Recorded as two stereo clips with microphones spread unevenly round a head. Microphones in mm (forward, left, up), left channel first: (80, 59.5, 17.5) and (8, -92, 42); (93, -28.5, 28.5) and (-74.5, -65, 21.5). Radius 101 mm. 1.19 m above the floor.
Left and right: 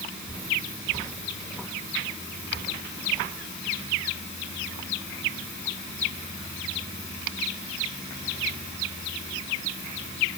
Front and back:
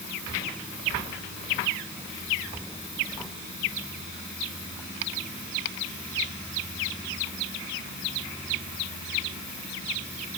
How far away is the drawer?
I don't hear a drawer.